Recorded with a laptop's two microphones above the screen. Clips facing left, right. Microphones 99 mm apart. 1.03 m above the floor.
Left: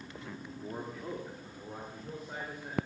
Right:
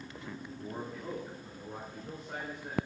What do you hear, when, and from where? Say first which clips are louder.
0.5 s a man speaking: left 1 dB; 10° left (ahead or behind), 1.9 m; by 2.8 s 5° left (ahead or behind), 4 m